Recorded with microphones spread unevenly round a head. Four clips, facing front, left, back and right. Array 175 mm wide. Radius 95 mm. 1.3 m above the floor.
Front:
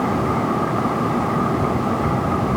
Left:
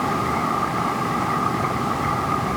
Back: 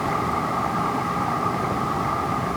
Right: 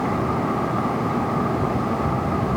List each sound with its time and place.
Only background noise.